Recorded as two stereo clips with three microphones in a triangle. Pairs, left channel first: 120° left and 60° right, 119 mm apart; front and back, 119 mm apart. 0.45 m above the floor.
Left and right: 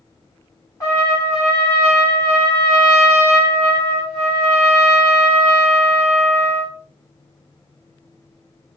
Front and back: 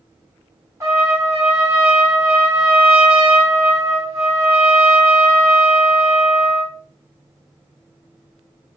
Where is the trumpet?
140° left, 1.2 m.